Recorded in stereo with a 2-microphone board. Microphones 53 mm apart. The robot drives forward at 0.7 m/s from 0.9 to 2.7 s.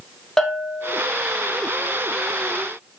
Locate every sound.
0.4 s a bell: 10° left (ahead or behind), 1.2 m